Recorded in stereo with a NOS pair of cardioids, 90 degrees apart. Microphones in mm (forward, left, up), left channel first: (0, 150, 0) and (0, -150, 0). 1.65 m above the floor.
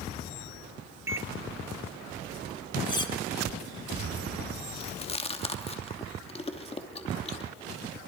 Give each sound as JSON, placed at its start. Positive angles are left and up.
{"t": 1.1, "sound": "a microwave", "azimuth_deg": -10, "distance_m": 0.8}
{"t": 2.9, "sound": "cutlery clinking", "azimuth_deg": 15, "distance_m": 2.5}
{"t": 4.8, "sound": "chewing", "azimuth_deg": 20, "distance_m": 2.5}